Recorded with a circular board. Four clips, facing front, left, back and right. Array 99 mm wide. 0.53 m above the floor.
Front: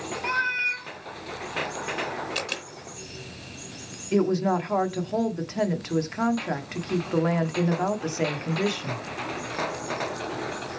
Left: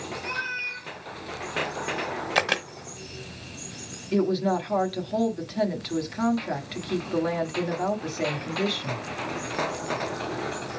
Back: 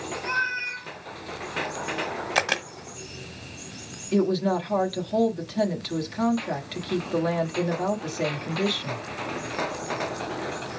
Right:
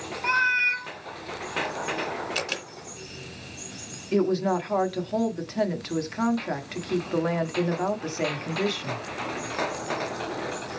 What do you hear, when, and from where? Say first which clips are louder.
0.2 s a cat meowing: right 8 dB, front 1 dB; 70° right, 0.9 m
2.4 s a camera shutter: left 7 dB, back 7 dB; 130° left, 0.8 m
4.1 s a woman speaking: even, even; 30° right, 1.0 m